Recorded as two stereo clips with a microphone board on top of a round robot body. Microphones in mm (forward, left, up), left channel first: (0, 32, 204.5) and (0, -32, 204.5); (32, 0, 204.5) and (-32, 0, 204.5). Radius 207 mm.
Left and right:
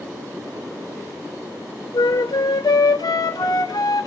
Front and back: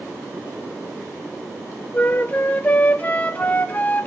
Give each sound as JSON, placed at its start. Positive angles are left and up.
{"t": 1.9, "sound": "a flute", "azimuth_deg": 70, "distance_m": 0.9}